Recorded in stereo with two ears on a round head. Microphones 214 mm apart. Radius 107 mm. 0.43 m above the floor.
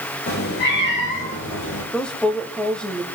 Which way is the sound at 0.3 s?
40° left (ahead or behind).